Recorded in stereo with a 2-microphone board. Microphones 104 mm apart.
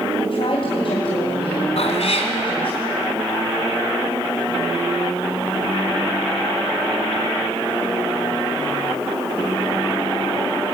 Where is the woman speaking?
60° left (ahead or behind), 3 m.